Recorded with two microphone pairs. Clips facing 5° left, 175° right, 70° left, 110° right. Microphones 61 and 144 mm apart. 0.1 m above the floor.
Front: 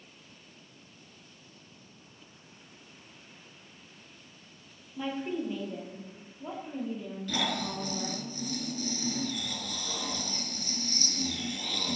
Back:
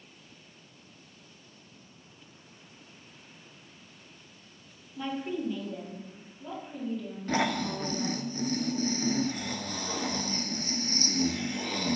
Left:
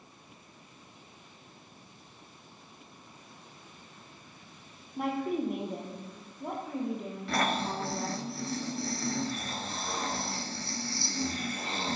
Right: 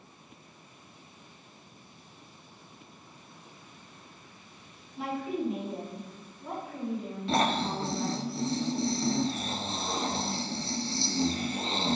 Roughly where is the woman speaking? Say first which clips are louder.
Even, left 2 dB; left.